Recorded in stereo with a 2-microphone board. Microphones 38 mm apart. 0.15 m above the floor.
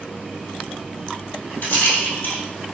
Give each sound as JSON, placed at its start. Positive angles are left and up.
{"t": 1.6, "sound": "a rattle", "side_deg": 55, "distance_m": 1.7}